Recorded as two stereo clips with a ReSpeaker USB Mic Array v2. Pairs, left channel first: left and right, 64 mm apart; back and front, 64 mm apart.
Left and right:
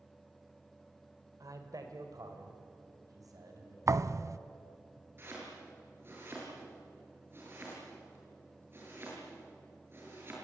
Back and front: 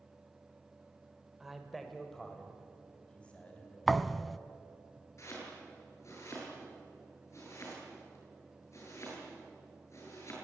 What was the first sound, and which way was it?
A man speaking, 85° right.